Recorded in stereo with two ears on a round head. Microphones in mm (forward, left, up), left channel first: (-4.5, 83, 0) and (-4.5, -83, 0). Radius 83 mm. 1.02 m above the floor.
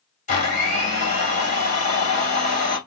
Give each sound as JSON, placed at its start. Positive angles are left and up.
{"t": 0.3, "sound": "a blender", "side_deg": 40, "distance_m": 2.5}